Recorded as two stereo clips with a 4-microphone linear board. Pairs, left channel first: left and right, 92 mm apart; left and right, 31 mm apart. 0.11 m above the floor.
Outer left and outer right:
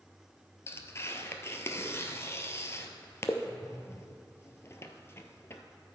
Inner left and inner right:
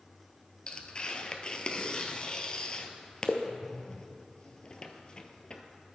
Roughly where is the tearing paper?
Left.